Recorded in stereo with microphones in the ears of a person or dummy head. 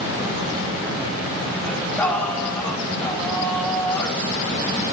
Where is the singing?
5° left (ahead or behind), 4 m.